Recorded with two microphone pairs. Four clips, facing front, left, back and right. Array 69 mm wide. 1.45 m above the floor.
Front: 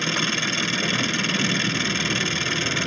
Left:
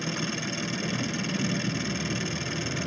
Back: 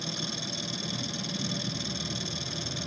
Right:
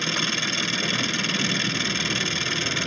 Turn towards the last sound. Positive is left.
turn(degrees=-35)